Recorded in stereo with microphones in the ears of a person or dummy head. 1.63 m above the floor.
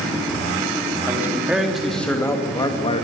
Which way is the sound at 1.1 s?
10° right (ahead or behind).